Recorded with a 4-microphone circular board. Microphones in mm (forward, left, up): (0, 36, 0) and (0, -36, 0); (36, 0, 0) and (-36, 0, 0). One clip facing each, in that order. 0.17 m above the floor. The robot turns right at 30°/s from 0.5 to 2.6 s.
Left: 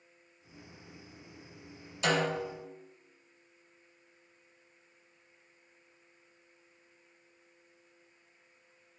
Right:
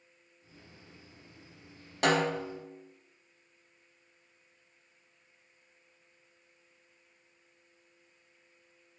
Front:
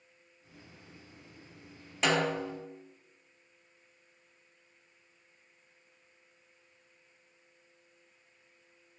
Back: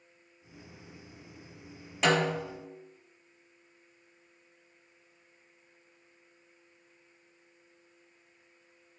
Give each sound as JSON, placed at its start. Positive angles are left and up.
{"t": 2.0, "sound": "a snare drum", "azimuth_deg": -90, "distance_m": 3.5}